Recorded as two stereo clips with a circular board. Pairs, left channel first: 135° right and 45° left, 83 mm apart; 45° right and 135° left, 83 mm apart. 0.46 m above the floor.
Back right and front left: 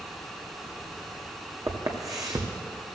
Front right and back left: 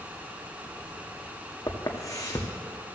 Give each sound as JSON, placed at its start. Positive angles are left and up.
{"t": 1.7, "sound": "footsteps", "azimuth_deg": 0, "distance_m": 1.8}